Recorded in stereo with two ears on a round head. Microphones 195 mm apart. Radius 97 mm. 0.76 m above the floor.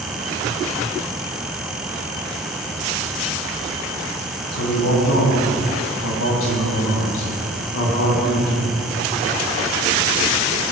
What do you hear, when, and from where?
4.5 s a man speaking: 80° left, 6 m; by 8.7 s 60° left (ahead or behind), 7.5 m